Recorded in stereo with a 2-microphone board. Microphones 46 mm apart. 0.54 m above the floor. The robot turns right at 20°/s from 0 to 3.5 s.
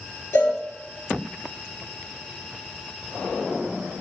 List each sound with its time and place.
0.3 s a cowbell: 65° left (ahead or behind), 4.5 m; by 0.6 s 60° left (ahead or behind), 4.5 m